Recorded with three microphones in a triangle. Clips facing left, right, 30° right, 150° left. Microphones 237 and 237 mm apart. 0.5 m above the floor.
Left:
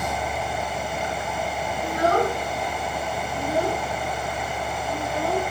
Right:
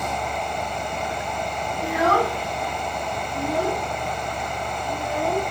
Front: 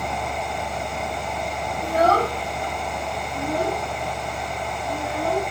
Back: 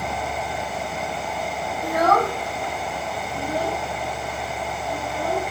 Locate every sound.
1.8 s a child speaking: 95° right, 2.5 m; by 5.4 s 50° right, 7 m